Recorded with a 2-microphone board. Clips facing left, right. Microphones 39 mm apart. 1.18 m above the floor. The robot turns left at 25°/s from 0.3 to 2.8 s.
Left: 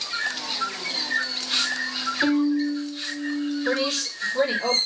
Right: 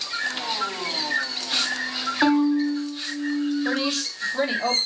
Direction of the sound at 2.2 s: 45° right (ahead or behind).